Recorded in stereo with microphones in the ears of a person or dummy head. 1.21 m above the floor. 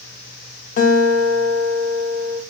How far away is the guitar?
About 1.0 m.